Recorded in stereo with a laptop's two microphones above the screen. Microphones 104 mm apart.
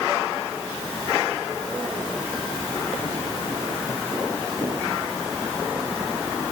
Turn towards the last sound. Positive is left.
No sound to turn to.